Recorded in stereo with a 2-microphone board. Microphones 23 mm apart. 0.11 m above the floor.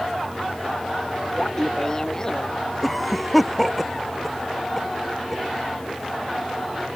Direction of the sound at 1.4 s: 25° left (ahead or behind).